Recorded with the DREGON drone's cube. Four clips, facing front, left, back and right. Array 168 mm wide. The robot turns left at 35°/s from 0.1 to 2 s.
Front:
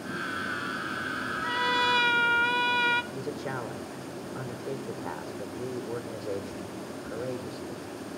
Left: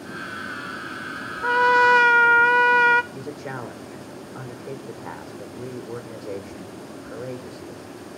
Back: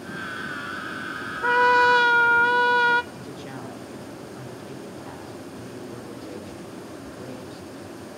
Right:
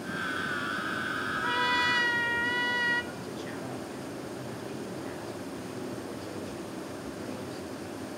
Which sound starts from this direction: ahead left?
A man speaking, at 3.1 s.